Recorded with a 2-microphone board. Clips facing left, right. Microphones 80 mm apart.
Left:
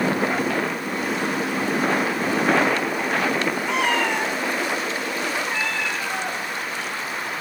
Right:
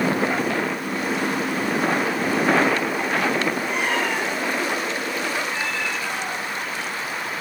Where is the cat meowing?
85° left, 4.5 m; by 7.4 s 45° left (ahead or behind), 5.5 m.